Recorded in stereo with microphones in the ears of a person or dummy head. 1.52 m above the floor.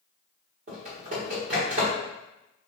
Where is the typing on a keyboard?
40° right (ahead or behind), 1.3 m.